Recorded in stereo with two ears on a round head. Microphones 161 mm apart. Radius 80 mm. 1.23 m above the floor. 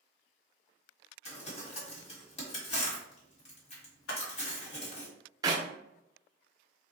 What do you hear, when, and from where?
1.2 s crumpling: 40° left (ahead or behind), 1.2 m
4.1 s a camera shutter: 85° left, 0.8 m
5.4 s a clap: 20° right (ahead or behind), 0.5 m